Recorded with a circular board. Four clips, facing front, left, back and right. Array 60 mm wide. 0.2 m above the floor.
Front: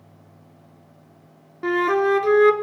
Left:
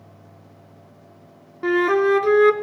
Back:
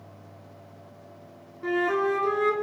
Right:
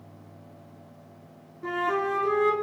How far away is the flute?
About 0.9 m.